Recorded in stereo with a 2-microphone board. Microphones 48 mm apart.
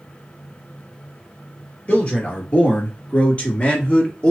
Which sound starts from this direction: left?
A man speaking, at 1.9 s.